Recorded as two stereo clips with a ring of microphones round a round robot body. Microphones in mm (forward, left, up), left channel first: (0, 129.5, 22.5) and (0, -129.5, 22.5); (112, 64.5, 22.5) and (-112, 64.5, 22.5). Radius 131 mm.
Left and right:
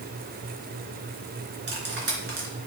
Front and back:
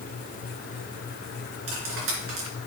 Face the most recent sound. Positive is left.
turn(degrees=-140)